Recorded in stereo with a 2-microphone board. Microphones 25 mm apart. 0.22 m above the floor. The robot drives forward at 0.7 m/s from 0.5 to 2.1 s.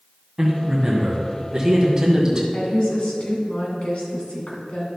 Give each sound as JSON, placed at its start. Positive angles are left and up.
{"t": 0.4, "sound": "a man speaking", "side_deg": -15, "distance_m": 1.8}
{"t": 2.5, "sound": "a woman speaking", "side_deg": 45, "distance_m": 2.5}